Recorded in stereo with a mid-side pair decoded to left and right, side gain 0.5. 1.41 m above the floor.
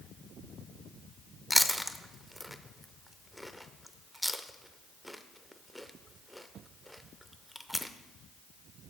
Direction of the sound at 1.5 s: 5° left.